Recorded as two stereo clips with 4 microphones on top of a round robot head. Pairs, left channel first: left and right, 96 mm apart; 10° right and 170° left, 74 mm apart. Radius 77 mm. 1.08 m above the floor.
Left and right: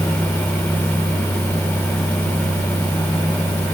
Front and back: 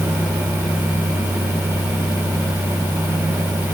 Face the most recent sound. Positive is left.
No sound to turn to.